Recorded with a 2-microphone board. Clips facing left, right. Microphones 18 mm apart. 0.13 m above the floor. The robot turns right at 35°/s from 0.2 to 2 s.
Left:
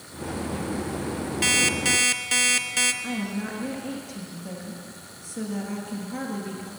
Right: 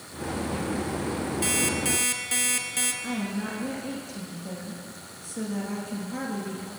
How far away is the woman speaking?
About 2.5 m.